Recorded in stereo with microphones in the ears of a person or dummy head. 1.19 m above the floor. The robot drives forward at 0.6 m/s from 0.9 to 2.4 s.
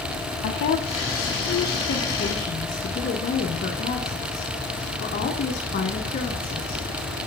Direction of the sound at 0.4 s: 60° left (ahead or behind).